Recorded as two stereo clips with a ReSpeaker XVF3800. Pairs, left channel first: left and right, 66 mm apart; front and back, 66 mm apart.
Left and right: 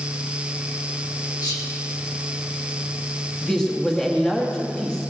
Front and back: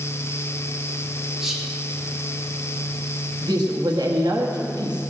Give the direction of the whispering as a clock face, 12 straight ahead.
9 o'clock.